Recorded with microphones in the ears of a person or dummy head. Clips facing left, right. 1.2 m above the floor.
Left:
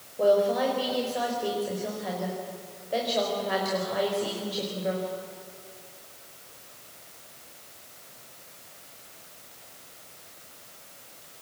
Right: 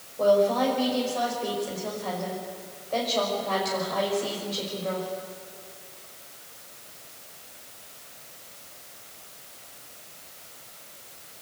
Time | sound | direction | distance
0.2 | a woman speaking | 15° left (ahead or behind) | 5 m